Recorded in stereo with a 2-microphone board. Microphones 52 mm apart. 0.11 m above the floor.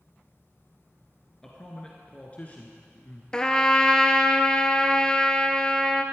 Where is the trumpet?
15° left (ahead or behind), 0.7 m.